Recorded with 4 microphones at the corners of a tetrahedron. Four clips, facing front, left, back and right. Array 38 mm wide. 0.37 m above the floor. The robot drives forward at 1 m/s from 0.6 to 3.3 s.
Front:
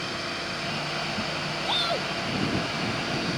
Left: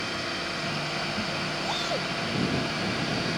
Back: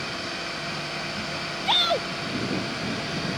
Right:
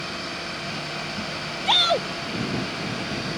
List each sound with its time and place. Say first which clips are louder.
1.7 s a shout: right 13 dB, back 5 dB; 115° right